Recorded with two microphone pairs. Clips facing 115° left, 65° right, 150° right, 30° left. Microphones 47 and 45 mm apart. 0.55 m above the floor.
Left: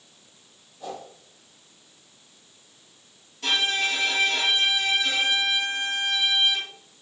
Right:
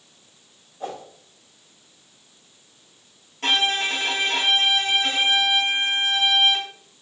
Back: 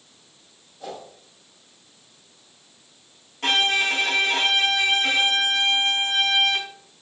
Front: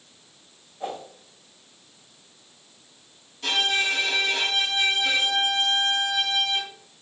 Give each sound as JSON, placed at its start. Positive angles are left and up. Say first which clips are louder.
{"t": 0.8, "sound": "a whoosh", "louder": "right 3 dB, front 3 dB", "azimuth_deg": -30, "distance_m": 3.5}
{"t": 3.4, "sound": "a violin", "louder": "right 3 dB, back 3 dB", "azimuth_deg": -110, "distance_m": 2.5}